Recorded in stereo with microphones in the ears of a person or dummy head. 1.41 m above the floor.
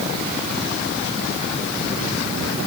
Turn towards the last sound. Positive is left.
No sound to turn to.